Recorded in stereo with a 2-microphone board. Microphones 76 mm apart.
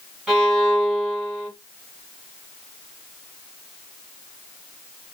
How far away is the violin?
About 1.8 m.